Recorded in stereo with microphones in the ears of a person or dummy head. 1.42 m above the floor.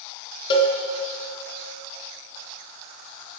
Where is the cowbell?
30° left (ahead or behind), 1.3 m.